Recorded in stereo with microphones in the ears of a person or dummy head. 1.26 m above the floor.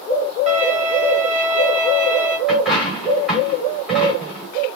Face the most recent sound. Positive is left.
turn(degrees=0)  # may be behind; listen again after turning